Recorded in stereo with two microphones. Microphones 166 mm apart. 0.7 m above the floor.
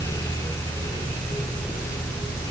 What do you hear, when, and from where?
Only background noise.